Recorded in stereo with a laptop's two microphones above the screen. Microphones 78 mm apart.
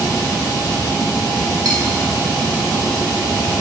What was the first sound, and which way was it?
Cutlery clinking, 55° right (ahead or behind).